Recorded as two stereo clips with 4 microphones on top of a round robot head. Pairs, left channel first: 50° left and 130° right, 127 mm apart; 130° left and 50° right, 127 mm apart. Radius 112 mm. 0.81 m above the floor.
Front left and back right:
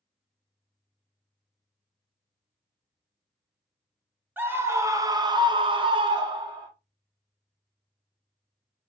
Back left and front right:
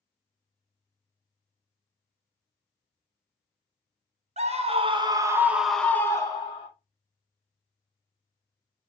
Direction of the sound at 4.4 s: 60° right.